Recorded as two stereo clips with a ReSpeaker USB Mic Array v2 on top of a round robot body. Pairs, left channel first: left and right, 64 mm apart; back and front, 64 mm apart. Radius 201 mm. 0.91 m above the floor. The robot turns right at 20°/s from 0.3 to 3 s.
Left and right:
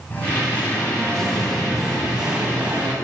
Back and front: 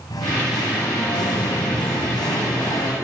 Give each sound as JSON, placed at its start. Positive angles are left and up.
{"t": 0.1, "sound": "singing", "azimuth_deg": 155, "distance_m": 1.8}